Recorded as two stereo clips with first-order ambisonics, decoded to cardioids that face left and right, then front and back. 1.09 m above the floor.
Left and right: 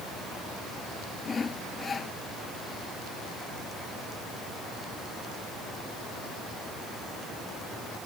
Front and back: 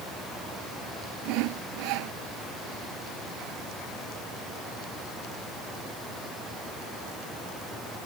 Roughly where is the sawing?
Behind.